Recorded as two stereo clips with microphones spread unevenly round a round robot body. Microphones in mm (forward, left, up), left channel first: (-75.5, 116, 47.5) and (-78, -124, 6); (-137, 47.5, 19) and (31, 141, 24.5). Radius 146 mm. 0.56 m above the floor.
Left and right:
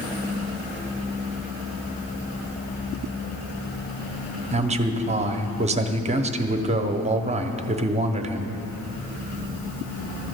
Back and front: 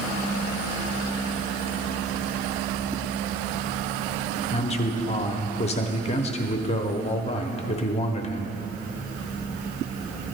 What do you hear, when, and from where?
4.5 s a man speaking: 115° right, 1.0 m